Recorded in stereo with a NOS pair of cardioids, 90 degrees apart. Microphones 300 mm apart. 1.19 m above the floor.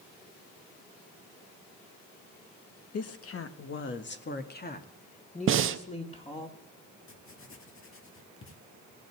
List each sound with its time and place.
2.9 s a woman speaking: 55° left, 1.6 m; by 6.5 s 20° left, 3 m
5.5 s breathing: 45° right, 0.9 m
7.1 s writing: 45° left, 2.5 m